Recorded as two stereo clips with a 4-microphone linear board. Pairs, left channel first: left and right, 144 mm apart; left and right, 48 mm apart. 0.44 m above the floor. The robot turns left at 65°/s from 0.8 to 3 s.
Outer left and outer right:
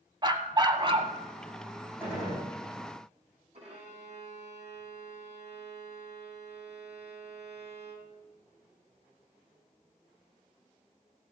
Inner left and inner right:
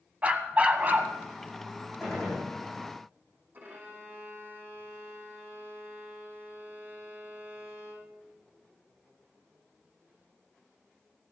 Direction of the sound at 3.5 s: 45° right (ahead or behind).